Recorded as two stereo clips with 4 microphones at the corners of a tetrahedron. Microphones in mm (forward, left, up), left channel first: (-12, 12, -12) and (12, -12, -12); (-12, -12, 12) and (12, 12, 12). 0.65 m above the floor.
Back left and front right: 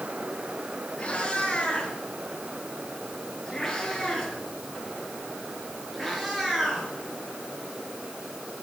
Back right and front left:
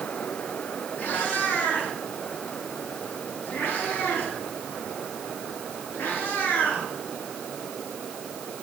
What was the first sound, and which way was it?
A cat meowing, 165° right.